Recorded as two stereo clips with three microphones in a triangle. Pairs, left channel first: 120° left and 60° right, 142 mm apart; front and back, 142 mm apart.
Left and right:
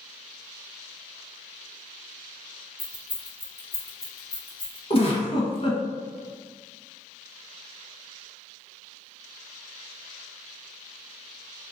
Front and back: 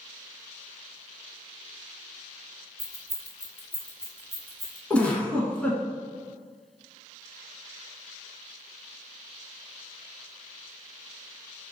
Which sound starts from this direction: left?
A giggle, at 4.9 s.